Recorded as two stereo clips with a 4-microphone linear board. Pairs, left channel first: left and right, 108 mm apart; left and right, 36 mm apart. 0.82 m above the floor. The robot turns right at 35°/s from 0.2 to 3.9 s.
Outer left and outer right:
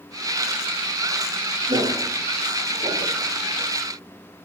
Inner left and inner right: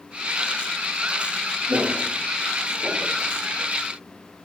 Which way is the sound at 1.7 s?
80° right.